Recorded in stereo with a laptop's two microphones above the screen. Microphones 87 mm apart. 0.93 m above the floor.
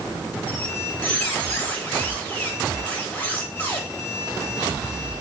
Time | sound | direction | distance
0.5 | a squeak | 20° left (ahead or behind) | 1.0 m